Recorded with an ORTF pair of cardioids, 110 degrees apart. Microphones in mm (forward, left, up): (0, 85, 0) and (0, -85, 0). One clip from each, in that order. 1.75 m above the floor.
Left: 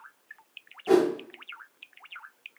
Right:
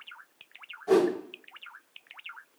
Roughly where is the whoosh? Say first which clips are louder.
Left 1 dB; ahead left.